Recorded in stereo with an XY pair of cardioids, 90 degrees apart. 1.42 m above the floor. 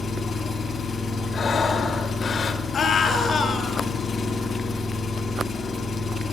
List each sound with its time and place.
0.0 s an engine running: 55° left, 2.5 m
1.3 s breathing: 60° left, 2 m
2.7 s a scream: 55° left, 3 m